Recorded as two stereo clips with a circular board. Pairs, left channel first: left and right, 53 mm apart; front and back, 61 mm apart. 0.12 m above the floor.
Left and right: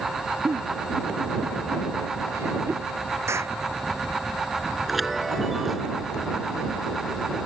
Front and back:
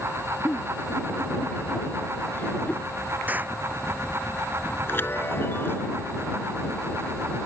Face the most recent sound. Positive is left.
turn(degrees=-5)